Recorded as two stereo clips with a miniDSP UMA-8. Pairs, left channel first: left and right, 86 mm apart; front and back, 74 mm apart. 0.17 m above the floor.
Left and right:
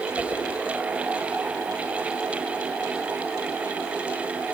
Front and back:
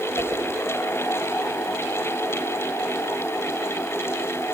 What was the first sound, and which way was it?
A whoosh, 15° right.